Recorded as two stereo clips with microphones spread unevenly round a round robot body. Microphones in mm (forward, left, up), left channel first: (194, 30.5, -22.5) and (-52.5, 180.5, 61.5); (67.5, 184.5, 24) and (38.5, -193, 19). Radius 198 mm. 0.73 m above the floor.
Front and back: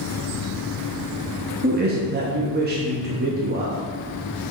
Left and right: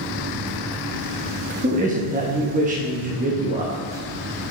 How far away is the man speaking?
About 0.9 m.